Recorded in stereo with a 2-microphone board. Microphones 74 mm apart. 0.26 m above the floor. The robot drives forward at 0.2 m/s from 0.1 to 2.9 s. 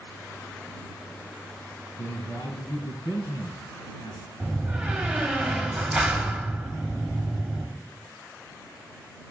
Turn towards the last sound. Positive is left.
turn(degrees=-10)  # may be behind; listen again after turning